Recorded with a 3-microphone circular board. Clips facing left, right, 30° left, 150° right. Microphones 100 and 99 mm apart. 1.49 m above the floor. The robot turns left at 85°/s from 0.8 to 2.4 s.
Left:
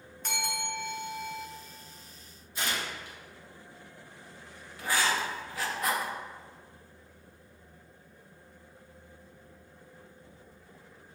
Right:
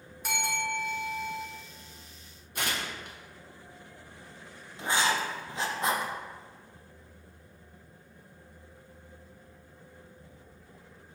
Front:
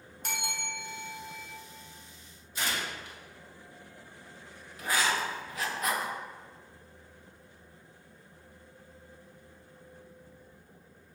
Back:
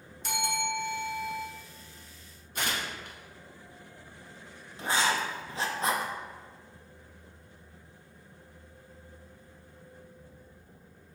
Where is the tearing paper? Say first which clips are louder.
Even, back 1 dB; 115° right, 0.8 m.